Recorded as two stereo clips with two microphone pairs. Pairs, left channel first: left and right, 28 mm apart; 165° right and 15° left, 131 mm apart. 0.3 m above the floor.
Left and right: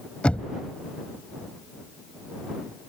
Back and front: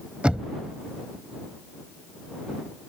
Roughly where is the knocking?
Left.